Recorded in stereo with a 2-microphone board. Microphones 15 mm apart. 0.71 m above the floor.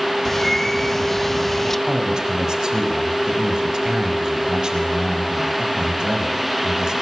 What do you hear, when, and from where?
0.2 s a bird: 20° left (ahead or behind), 1.0 m
1.9 s a man speaking: 50° right (ahead or behind), 5.5 m